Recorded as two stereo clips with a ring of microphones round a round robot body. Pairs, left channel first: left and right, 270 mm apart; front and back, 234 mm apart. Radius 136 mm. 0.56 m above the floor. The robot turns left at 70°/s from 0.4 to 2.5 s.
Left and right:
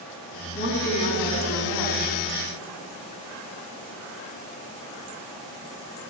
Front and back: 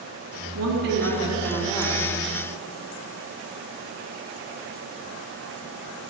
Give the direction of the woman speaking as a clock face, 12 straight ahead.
7 o'clock.